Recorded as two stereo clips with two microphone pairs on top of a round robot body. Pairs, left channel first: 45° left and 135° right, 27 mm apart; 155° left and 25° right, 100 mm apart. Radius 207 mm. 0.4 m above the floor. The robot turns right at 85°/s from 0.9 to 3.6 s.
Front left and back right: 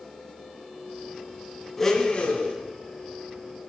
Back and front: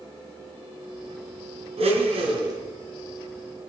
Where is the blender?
35° right, 3 m; by 2.6 s 30° left, 3 m.